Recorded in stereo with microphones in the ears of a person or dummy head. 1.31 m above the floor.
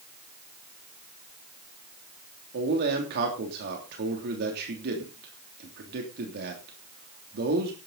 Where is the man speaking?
55° right (ahead or behind), 3 m.